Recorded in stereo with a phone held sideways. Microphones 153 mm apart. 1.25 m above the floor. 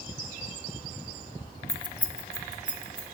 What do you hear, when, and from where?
1.7 s keys jangling: 45° left (ahead or behind), 0.5 m; by 3.0 s 35° right (ahead or behind), 1.5 m